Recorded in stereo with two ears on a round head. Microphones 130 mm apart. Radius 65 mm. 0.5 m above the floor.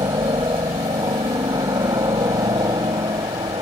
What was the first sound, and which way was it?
A helicopter, 25° right (ahead or behind).